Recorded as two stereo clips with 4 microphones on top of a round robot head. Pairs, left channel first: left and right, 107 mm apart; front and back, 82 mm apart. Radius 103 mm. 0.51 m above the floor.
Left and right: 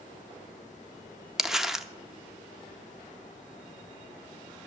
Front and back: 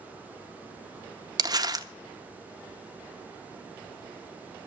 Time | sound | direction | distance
1.4 | crumpling | 175° right | 0.9 m